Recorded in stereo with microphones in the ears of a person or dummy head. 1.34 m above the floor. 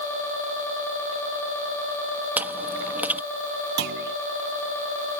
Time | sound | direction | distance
2.4 | chewing | 5° right (ahead or behind) | ?
3.8 | a clunk | 60° right (ahead or behind) | ?